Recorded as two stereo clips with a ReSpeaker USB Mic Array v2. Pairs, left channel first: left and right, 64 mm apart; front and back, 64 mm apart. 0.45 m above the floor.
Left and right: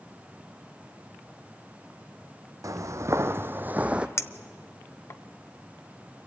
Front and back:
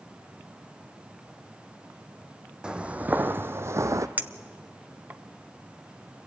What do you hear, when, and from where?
2.6 s footsteps: 105° right, 0.9 m; by 4.1 s 165° right, 0.9 m
4.2 s a clink: 125° left, 0.6 m